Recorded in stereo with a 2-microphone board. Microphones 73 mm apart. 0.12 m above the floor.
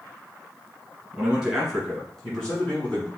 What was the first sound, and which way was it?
A man speaking, 10° right (ahead or behind).